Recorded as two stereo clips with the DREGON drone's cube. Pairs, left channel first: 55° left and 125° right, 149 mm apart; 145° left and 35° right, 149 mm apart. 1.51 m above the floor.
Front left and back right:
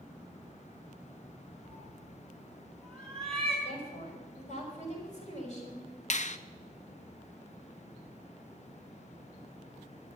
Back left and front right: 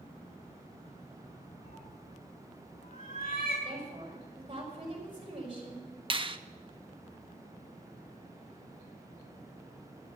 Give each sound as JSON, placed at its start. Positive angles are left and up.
{"t": 1.6, "sound": "a cat meowing", "azimuth_deg": 140, "distance_m": 5.0}
{"t": 3.6, "sound": "a woman speaking", "azimuth_deg": 20, "distance_m": 5.5}
{"t": 6.1, "sound": "a finger snap", "azimuth_deg": 20, "distance_m": 0.6}